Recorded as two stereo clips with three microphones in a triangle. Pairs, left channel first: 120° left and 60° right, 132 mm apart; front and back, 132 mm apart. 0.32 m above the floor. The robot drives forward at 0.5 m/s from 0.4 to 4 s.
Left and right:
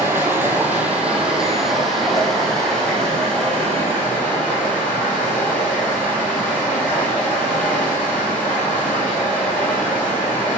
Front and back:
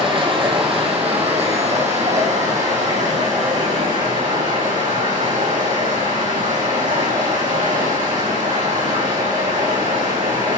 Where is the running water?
135° right, 1.4 m; by 10.6 s 160° right, 3 m.